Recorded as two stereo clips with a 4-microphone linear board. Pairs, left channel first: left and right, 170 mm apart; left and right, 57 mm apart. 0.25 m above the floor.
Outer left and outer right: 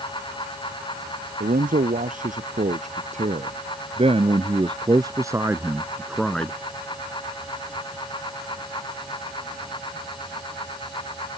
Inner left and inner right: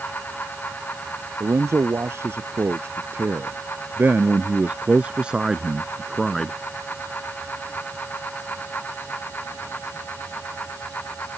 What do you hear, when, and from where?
1.4 s a man speaking: 55° right (ahead or behind); by 6.5 s 10° left (ahead or behind)